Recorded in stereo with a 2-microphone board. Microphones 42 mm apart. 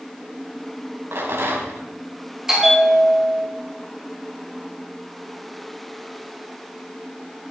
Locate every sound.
1.1 s a rattle: 75° right (ahead or behind), 4 m
2.5 s a bell: 10° right (ahead or behind), 4.5 m